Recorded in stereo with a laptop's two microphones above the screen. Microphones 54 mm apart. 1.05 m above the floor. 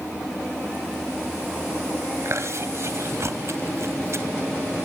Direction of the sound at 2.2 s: 55° right (ahead or behind).